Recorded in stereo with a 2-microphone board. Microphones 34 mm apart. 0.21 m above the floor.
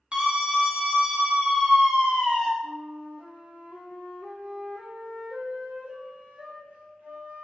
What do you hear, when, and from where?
0.1 s a scream: 30° right (ahead or behind), 1.5 m
2.6 s a flute: 60° right (ahead or behind), 1.0 m